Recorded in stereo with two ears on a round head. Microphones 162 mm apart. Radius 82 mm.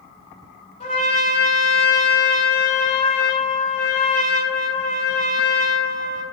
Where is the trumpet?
35° left (ahead or behind), 1.4 m.